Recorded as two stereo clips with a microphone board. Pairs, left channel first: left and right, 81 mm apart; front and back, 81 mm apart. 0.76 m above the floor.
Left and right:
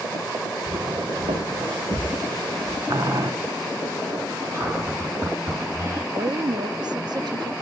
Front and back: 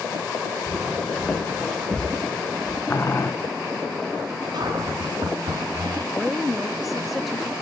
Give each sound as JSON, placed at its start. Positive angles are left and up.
{"t": 0.7, "sound": "footsteps", "azimuth_deg": -90, "distance_m": 3.0}
{"t": 2.9, "sound": "boiling", "azimuth_deg": -55, "distance_m": 1.7}
{"t": 4.5, "sound": "a cupboard door", "azimuth_deg": -140, "distance_m": 5.5}
{"t": 6.1, "sound": "a woman speaking", "azimuth_deg": -90, "distance_m": 0.7}